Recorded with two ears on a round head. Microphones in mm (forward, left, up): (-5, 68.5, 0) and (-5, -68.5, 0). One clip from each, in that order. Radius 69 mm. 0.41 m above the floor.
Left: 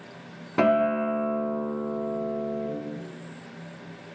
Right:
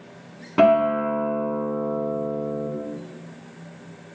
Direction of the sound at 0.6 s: 15° right (ahead or behind).